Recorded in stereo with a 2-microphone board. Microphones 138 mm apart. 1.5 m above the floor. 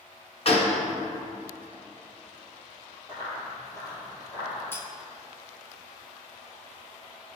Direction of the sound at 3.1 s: 20° left (ahead or behind).